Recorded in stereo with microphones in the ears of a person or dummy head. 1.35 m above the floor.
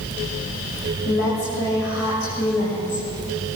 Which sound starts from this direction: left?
A woman speaking, at 1.1 s.